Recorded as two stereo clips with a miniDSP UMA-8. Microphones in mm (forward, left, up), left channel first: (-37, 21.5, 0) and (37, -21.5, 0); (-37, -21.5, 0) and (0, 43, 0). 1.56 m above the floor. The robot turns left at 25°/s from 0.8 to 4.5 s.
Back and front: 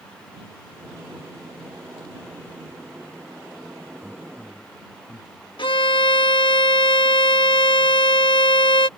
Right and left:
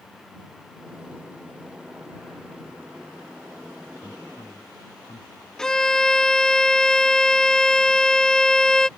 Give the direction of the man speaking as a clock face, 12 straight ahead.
4 o'clock.